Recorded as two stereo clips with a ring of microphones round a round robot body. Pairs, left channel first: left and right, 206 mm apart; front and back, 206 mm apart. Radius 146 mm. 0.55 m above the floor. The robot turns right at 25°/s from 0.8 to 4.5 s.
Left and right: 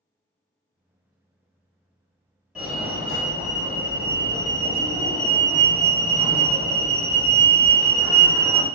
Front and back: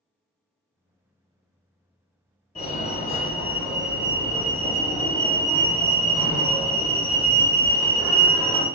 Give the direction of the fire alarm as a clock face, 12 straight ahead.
12 o'clock.